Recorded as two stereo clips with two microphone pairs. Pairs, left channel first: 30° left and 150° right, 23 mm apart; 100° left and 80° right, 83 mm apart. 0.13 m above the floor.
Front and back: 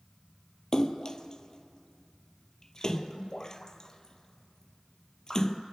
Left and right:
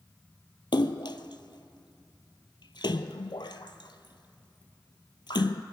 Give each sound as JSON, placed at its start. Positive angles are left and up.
{"t": 0.7, "sound": "a splash", "azimuth_deg": 85, "distance_m": 0.6}